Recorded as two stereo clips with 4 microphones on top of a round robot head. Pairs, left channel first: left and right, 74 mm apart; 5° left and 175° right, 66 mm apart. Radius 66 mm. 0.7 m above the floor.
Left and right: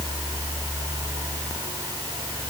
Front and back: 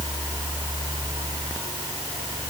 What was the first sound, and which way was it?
Only background noise.